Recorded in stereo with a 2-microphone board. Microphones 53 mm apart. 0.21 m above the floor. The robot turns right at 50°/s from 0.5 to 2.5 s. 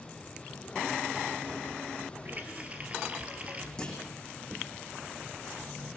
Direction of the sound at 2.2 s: 40° right (ahead or behind).